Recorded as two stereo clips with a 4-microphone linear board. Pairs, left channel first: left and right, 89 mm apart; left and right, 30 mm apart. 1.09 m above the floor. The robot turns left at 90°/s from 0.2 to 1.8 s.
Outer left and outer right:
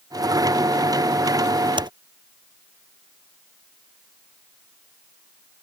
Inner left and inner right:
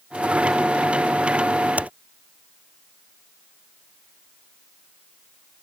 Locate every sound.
1.8 s typing on a keyboard: 55° right (ahead or behind)